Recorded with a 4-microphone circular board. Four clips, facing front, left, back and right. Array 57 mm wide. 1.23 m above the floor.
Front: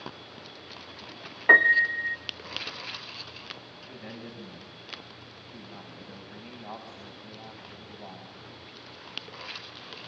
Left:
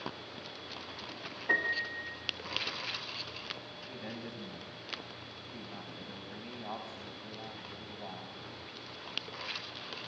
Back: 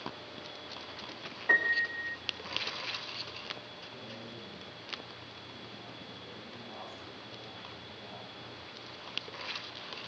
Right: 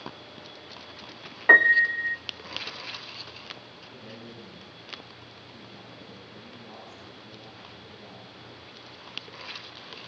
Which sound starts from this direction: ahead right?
A piano, at 1.5 s.